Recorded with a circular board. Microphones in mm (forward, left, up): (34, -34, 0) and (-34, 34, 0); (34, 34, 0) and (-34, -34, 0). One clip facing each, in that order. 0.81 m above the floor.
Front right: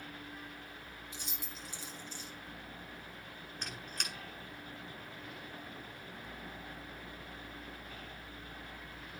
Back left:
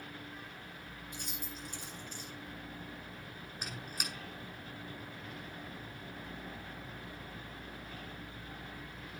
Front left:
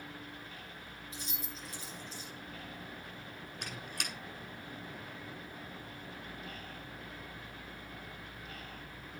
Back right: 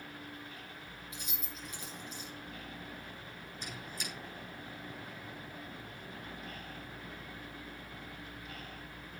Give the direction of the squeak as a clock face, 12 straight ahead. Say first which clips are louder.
Back left 1 dB, front left 1 dB; 10 o'clock.